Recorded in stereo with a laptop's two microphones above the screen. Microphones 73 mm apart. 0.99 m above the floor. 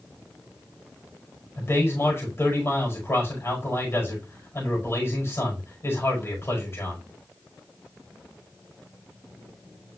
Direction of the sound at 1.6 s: 35° left (ahead or behind).